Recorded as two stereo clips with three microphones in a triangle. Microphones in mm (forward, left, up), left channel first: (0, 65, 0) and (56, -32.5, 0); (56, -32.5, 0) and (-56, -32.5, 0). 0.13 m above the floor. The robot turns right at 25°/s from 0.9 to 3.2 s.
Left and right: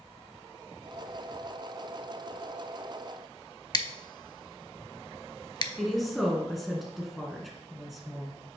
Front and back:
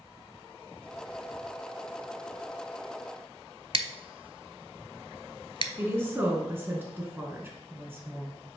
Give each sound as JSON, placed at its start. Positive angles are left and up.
{"t": 3.7, "sound": "scissors", "azimuth_deg": 160, "distance_m": 0.5}
{"t": 5.8, "sound": "a woman speaking", "azimuth_deg": -150, "distance_m": 1.4}